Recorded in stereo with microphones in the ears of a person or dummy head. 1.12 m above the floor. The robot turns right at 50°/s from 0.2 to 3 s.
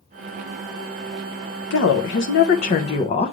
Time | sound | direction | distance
1.7 | a woman speaking | 85° left | 0.6 m